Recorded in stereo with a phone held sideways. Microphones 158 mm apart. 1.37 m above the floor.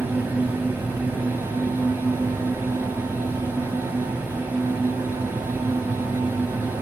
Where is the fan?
10° right (ahead or behind), 0.9 m.